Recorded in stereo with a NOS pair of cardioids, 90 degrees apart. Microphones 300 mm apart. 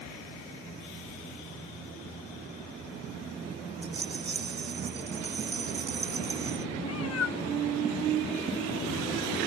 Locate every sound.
3.8 s a rattle: 35° right
6.8 s a cat meowing: 55° left